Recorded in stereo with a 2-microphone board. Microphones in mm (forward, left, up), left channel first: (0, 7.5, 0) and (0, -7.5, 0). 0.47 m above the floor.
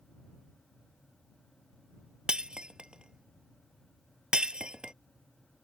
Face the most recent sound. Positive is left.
turn(degrees=-80)